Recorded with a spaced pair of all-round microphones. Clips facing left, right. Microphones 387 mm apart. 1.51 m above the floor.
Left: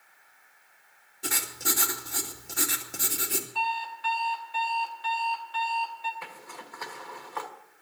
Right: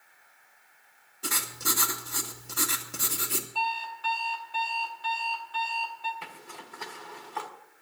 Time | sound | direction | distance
1.2 | writing | 10° right (ahead or behind) | 1.9 m
3.5 | an alarm clock | 60° right (ahead or behind) | 2.5 m
6.2 | a zipper | 45° right (ahead or behind) | 1.6 m